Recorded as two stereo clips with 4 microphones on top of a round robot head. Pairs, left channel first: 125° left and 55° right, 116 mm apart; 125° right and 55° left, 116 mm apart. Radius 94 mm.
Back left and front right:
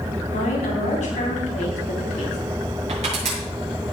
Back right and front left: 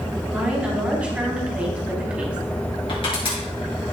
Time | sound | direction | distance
0.3 | a woman speaking | 135° left | 4 m
2.9 | crushing | 85° right | 6.5 m